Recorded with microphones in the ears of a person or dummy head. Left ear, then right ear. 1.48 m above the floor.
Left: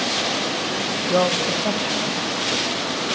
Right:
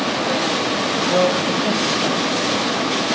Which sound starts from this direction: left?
A man speaking, at 1.1 s.